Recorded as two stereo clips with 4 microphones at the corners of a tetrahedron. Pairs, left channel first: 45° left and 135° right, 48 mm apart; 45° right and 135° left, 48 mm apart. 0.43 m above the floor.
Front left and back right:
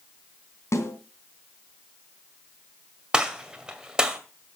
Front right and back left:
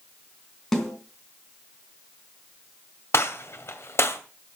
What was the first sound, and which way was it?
A snare drum, 40° left.